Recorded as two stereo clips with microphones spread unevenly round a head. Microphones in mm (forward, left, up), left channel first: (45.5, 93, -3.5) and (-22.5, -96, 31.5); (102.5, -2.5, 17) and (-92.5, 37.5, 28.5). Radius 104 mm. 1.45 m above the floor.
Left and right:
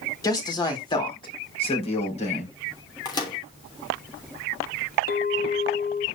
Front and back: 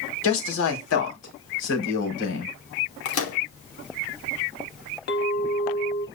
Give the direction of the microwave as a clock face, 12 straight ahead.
12 o'clock.